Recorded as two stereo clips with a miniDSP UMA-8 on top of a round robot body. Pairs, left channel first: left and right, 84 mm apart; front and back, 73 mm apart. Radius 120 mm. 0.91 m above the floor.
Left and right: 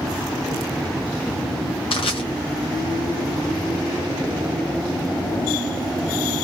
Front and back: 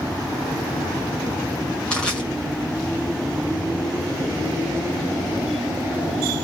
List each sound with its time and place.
1.9 s crushing: 80° left, 2 m